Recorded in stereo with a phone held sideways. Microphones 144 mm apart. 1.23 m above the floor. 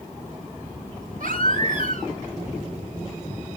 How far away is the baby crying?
About 3.5 m.